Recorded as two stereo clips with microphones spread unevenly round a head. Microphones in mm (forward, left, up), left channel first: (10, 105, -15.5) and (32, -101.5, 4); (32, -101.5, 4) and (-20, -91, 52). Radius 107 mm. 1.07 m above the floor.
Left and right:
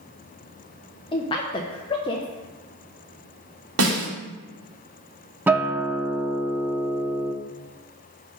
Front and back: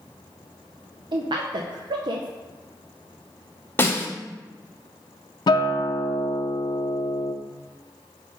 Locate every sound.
1.1 s a woman speaking: 140° left, 0.5 m
3.8 s a snare drum: 70° right, 1.8 m
5.5 s a guitar: 25° right, 0.6 m